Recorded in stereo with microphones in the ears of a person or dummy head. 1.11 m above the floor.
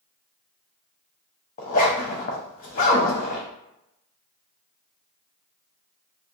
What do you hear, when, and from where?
1.6 s a zipper: 40° left (ahead or behind), 0.7 m